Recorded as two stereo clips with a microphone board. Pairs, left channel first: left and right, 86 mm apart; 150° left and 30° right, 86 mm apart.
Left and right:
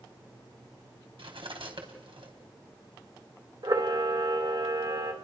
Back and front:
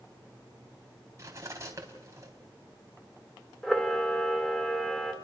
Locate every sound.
1.2 s cutlery clinking: 85° right, 3.5 m
3.6 s a camera shutter: 125° right, 3 m